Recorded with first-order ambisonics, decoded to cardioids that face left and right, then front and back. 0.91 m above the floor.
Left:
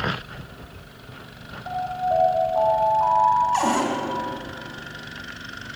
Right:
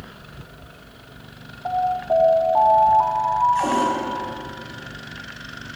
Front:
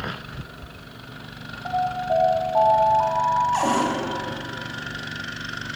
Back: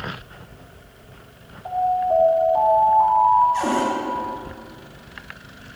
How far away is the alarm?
About 3 m.